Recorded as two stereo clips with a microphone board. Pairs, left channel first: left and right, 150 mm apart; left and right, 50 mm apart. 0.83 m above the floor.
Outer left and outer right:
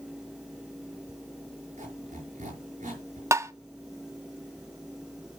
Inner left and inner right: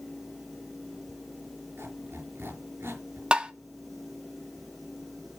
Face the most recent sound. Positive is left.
turn(degrees=-20)  # may be behind; listen again after turning